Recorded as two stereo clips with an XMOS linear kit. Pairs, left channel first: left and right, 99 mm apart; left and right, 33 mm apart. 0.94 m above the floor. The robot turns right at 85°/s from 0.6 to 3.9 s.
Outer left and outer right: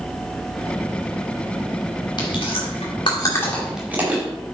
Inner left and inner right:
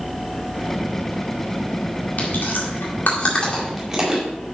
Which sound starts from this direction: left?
Chewing, at 2.2 s.